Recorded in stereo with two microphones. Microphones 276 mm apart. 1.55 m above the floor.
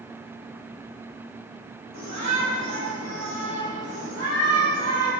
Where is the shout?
85° right, 3.5 m; by 5.1 s 60° right (ahead or behind), 5 m.